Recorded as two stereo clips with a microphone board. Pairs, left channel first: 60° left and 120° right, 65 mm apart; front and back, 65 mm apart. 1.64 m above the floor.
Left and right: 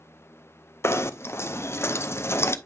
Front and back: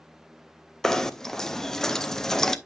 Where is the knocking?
80° left, 0.5 m.